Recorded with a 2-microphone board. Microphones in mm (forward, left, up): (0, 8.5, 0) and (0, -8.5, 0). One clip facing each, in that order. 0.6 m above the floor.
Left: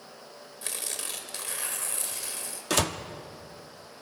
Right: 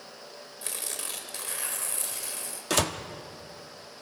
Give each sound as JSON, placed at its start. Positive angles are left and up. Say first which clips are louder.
{"t": 0.6, "sound": "tearing paper", "louder": "left 1 dB", "side_deg": 10, "distance_m": 2.5}
{"t": 2.7, "sound": "a door slam", "louder": "even", "side_deg": 0, "distance_m": 0.8}